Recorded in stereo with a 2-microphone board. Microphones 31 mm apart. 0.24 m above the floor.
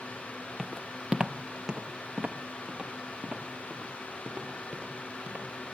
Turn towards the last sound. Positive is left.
turn(degrees=-35)  # may be behind; listen again after turning